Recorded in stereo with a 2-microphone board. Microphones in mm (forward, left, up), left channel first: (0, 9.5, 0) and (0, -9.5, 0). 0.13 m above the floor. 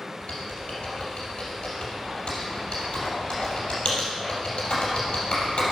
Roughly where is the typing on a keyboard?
Left.